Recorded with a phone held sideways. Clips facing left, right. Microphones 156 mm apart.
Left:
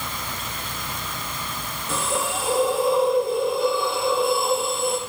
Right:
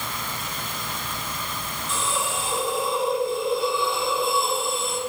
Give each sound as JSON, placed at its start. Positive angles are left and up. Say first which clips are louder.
{"t": 1.9, "sound": "a hiss", "louder": "left 3 dB", "side_deg": 60, "distance_m": 4.0}